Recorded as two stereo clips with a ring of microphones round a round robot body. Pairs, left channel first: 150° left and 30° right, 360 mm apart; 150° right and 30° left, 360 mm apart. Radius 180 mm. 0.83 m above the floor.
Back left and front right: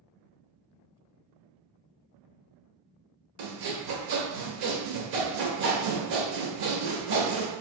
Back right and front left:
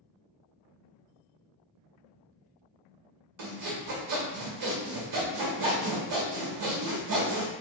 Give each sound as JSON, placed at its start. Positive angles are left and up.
{"t": 3.4, "sound": "sawing", "azimuth_deg": -5, "distance_m": 1.0}